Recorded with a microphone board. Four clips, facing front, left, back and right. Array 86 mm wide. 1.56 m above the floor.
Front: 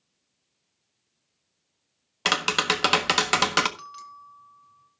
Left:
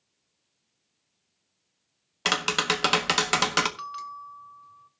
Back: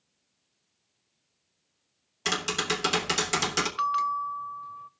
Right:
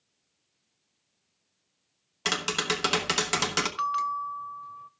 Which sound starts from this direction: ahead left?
Tapping, at 2.2 s.